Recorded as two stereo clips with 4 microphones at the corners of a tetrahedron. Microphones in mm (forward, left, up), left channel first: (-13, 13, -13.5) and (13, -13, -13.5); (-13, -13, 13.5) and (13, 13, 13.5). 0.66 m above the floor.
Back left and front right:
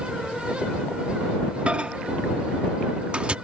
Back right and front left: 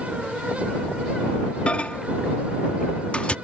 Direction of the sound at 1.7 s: 90° right.